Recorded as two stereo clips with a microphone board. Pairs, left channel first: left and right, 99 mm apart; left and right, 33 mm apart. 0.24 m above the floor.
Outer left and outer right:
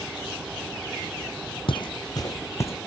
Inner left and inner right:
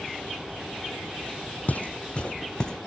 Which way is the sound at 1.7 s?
60° left (ahead or behind).